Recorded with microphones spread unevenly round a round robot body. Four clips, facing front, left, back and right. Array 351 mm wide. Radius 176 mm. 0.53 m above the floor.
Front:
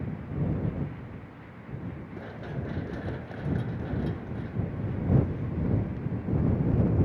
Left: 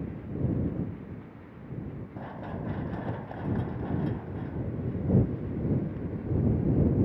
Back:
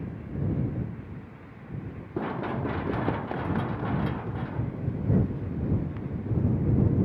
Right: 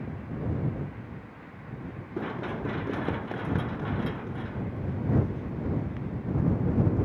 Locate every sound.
2.2 s running footsteps: 160° right